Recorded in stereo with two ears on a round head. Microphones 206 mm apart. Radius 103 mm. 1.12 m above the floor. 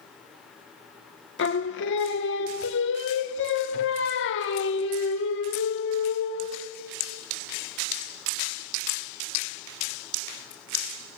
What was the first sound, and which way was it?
Singing, 55° left (ahead or behind).